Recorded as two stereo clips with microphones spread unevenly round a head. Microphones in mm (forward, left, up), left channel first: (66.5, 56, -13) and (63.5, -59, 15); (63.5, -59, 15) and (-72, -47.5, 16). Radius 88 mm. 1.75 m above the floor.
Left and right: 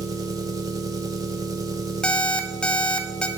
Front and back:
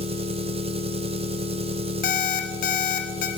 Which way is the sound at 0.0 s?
145° right.